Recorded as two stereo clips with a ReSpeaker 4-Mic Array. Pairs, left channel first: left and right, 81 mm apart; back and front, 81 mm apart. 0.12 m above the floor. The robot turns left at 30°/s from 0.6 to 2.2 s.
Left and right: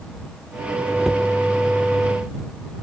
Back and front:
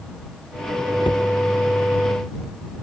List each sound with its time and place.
1.0 s a cupboard door: straight behind; by 1.3 s 175° left